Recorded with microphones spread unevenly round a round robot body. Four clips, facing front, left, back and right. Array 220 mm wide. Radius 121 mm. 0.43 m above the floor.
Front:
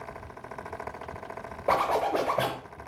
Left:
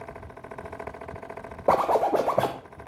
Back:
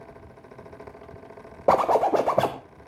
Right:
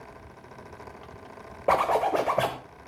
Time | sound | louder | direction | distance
1.7 | a zipper | left 2 dB, back 6 dB | 155° left | 0.6 m